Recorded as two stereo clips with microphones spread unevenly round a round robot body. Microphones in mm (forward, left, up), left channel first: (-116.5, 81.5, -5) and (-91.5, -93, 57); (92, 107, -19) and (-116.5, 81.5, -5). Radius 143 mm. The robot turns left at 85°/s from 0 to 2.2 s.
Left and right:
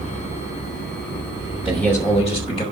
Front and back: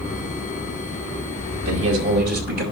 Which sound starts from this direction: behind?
A man speaking, at 1.6 s.